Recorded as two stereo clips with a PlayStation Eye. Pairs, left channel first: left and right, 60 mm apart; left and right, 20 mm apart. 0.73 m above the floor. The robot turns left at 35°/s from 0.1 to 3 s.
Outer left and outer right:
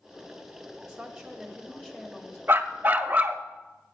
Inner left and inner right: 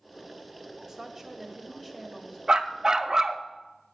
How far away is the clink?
No clink in this recording.